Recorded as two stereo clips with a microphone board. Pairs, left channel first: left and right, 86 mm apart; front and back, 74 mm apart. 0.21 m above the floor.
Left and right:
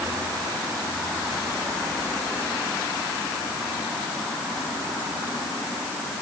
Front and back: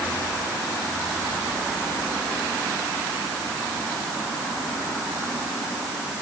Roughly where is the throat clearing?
No throat clearing in this recording.